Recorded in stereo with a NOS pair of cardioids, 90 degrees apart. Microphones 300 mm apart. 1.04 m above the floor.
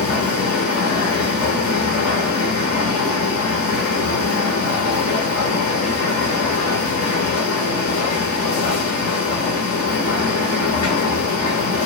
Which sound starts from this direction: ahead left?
A machine running, at 0.0 s.